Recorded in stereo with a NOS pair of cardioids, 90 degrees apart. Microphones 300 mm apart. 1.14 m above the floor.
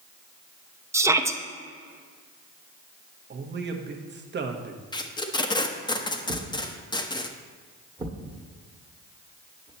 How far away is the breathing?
No breathing in this recording.